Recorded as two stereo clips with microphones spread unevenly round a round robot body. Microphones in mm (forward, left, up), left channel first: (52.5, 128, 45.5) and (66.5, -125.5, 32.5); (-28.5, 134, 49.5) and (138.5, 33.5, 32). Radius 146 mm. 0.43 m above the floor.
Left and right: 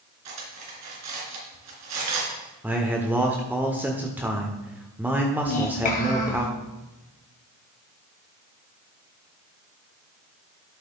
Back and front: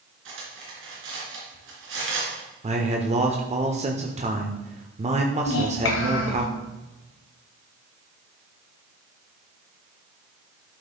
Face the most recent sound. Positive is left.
turn(degrees=155)